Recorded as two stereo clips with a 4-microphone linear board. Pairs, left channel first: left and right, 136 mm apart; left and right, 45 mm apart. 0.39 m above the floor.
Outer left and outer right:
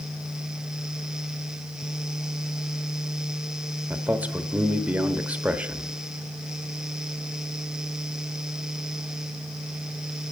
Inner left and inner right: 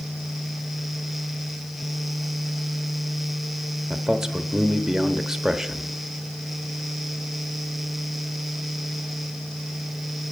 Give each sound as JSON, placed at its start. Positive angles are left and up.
{"t": 3.9, "sound": "a man speaking", "side_deg": -10, "distance_m": 1.1}